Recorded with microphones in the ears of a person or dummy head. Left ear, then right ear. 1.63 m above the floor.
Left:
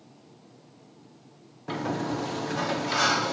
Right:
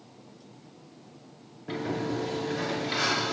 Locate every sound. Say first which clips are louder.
1.7 s a sliding door: left 1 dB; 30° left (ahead or behind), 0.6 m